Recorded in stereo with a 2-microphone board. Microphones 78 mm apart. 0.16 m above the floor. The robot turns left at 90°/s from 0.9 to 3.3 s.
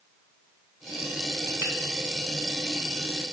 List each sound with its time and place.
1.6 s a finger snap: 20° right (ahead or behind), 1.3 m